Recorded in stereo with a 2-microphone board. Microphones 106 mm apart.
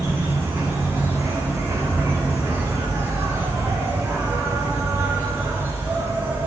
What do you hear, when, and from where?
0.0 s an insect: 25° right (ahead or behind), 2 m